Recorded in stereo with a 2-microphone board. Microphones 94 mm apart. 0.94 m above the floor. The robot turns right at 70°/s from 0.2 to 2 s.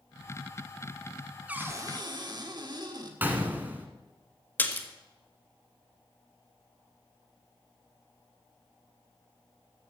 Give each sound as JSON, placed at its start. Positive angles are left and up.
{"t": 1.5, "sound": "a cupboard door", "azimuth_deg": -165, "distance_m": 1.5}
{"t": 3.2, "sound": "a gunshot", "side_deg": -20, "distance_m": 1.5}
{"t": 4.6, "sound": "a splash", "side_deg": 20, "distance_m": 1.2}